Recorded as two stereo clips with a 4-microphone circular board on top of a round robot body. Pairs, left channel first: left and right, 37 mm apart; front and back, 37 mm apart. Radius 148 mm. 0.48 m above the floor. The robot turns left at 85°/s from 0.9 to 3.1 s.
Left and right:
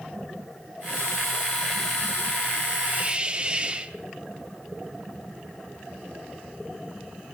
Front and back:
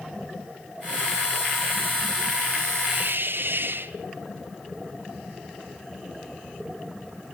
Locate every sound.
2.9 s a hiss: 135° right, 2.0 m; by 4.0 s 155° right, 2.0 m